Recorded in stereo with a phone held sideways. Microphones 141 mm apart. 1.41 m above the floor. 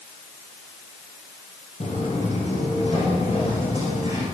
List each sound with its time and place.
1.8 s footsteps: 55° left (ahead or behind), 3 m; by 4.2 s 45° left (ahead or behind), 5.5 m